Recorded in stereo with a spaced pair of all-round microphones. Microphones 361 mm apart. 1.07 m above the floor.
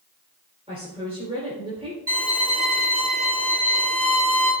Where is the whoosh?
I don't hear a whoosh.